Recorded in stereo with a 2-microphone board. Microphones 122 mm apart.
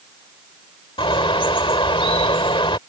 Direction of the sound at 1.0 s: 45° left (ahead or behind).